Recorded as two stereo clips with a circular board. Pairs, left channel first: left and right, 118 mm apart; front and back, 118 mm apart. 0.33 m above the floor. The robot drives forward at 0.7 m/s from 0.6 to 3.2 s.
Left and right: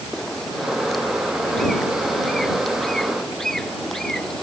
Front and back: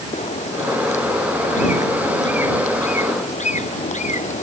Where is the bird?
Straight ahead; by 4.4 s 5° left.